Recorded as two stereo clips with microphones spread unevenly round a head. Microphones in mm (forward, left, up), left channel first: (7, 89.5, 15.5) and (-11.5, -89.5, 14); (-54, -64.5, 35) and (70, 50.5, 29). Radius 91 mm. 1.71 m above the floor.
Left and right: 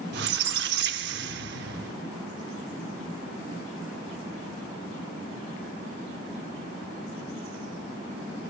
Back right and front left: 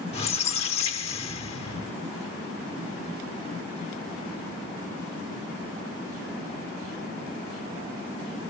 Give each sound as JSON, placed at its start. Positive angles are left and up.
{"t": 0.1, "sound": "a squeak", "azimuth_deg": -90, "distance_m": 0.9}